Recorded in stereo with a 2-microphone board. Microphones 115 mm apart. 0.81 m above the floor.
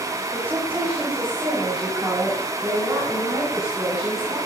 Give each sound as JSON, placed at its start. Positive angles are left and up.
{"t": 0.3, "sound": "a woman speaking", "side_deg": -15, "distance_m": 4.0}